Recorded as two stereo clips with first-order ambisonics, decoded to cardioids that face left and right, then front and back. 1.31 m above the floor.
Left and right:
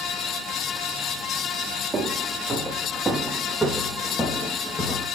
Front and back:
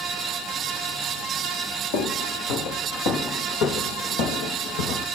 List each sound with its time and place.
1.9 s footsteps: 15° right, 4 m; by 5.1 s 20° left, 3 m